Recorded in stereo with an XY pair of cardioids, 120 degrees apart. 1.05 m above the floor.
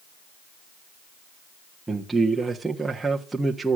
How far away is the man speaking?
About 1.3 m.